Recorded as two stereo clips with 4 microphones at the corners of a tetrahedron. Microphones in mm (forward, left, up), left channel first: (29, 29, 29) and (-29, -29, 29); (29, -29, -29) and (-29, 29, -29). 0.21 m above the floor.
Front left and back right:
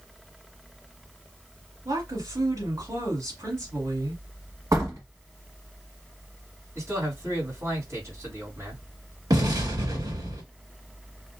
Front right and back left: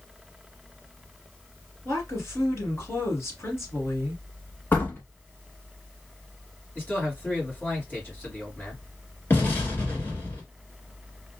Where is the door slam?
105° right, 1.3 m.